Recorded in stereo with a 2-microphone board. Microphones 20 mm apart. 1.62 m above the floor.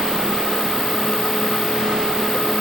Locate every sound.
Only background noise.